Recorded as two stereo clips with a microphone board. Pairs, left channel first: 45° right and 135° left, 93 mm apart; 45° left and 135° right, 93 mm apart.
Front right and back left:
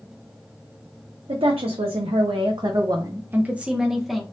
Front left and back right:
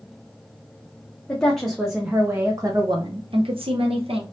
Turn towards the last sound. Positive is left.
turn(degrees=-135)